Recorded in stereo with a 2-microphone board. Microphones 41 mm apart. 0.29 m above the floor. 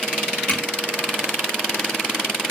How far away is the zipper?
About 3 m.